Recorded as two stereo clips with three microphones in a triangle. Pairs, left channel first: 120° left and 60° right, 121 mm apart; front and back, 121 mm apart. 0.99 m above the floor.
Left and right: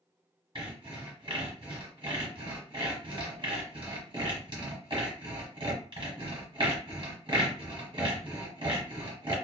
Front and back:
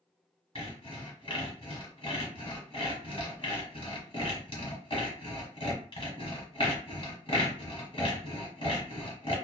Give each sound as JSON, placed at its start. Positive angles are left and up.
{"t": 0.6, "sound": "sawing", "azimuth_deg": -25, "distance_m": 1.3}